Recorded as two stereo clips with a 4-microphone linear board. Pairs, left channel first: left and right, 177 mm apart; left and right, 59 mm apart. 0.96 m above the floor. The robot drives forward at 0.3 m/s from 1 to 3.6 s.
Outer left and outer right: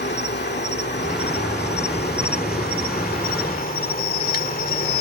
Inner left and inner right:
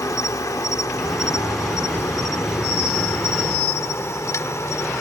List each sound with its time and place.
0.0 s an insect: 75° left (ahead or behind); by 5.0 s 55° left (ahead or behind)